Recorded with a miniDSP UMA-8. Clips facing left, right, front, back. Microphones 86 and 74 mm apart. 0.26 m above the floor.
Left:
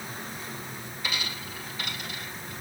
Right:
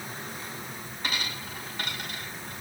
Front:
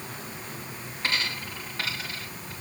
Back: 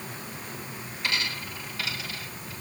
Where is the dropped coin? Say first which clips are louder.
Right 1 dB, front 1 dB; 55° right, 10 m.